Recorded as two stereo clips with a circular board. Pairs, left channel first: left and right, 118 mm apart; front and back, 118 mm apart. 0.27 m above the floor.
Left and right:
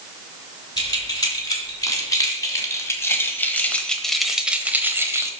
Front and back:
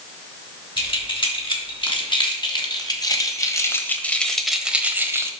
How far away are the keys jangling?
About 2.5 m.